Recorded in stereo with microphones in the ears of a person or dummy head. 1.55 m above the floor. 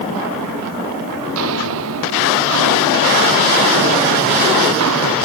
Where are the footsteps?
80° right; by 5.2 s 75° right (ahead or behind).